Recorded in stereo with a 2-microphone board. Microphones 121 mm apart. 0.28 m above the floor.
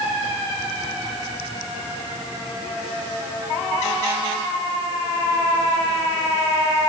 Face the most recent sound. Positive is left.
No sound to turn to.